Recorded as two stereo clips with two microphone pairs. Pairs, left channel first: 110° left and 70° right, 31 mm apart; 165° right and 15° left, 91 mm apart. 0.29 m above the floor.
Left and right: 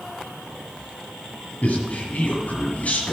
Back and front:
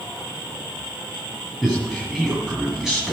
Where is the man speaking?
100° left, 1.8 m.